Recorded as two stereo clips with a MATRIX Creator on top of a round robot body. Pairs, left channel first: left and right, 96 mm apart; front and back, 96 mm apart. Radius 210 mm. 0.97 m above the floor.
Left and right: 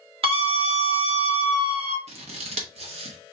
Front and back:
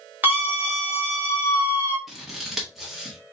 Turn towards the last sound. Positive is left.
turn(degrees=-90)